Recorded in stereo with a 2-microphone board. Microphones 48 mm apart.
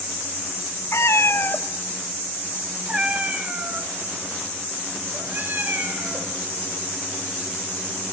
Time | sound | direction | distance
0.9 | a cat meowing | 75° left (ahead or behind) | 1.0 m